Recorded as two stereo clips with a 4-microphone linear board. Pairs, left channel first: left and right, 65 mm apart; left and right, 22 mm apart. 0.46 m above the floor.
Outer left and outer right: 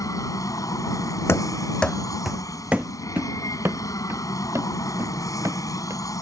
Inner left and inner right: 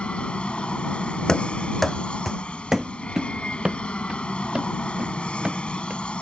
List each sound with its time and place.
0.0 s an aircraft: 60° left (ahead or behind)
1.3 s running footsteps: 40° left (ahead or behind); by 6.0 s 55° right (ahead or behind)